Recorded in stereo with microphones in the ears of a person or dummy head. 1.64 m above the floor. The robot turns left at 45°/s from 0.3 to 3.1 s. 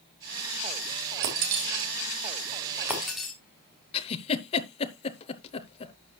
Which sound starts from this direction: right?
Breaking glass, at 1.2 s.